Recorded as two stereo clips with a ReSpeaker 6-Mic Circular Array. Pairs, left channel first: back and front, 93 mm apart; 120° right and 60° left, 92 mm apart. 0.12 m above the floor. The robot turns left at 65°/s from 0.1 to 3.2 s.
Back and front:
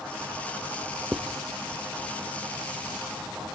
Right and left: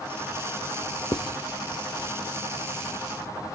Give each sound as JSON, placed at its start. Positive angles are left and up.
{"t": 1.1, "sound": "writing", "azimuth_deg": -85, "distance_m": 0.6}